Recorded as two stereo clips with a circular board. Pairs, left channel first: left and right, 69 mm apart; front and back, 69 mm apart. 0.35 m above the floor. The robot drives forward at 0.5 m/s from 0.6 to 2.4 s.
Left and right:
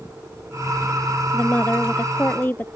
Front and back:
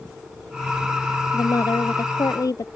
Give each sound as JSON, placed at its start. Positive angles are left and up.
{"t": 1.3, "sound": "a woman speaking", "azimuth_deg": 25}